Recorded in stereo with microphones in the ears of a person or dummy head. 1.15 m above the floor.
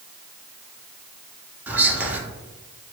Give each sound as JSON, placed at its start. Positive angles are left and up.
{"t": 1.7, "sound": "whispering", "side_deg": -5, "distance_m": 0.6}